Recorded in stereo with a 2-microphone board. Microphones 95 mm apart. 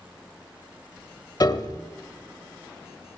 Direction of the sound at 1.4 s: 50° left (ahead or behind).